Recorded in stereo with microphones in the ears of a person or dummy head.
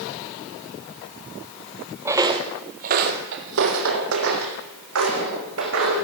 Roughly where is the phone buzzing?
No phone buzzing in this recording.